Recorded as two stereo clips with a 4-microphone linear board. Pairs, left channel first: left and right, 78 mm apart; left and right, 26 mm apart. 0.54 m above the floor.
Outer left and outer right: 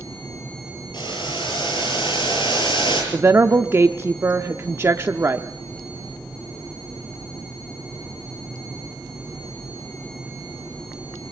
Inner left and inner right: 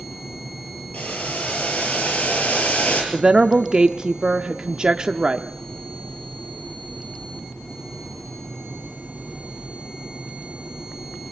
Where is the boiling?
90° left, 6.5 m.